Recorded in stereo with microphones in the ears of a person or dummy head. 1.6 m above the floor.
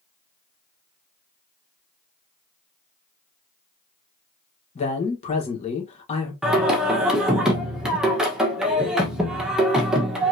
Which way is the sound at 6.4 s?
5° right (ahead or behind).